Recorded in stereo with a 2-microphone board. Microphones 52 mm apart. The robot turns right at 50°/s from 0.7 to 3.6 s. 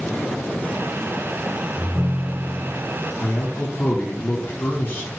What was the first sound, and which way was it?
A ringtone, 10° left.